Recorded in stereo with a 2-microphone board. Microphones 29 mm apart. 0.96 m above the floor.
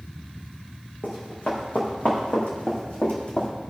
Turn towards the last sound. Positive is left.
turn(degrees=35)  # may be behind; listen again after turning